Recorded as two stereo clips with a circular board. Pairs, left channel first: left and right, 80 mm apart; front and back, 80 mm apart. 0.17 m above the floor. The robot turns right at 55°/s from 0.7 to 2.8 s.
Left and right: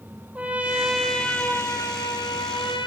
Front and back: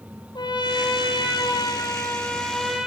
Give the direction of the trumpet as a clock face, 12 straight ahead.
1 o'clock.